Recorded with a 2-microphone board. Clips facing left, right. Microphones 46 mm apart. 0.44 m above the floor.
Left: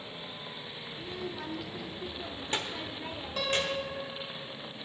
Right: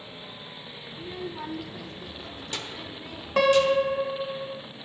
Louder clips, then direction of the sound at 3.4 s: Right 12 dB; 55° right (ahead or behind).